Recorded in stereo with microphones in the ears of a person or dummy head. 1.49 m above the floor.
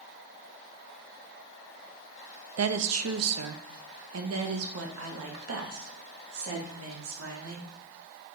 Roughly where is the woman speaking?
Right.